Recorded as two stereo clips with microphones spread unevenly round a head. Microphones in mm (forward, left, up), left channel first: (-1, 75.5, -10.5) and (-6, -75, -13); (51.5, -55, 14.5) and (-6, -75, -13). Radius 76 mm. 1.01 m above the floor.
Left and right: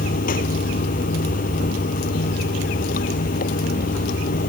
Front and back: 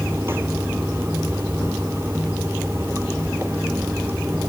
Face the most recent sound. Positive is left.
turn(degrees=125)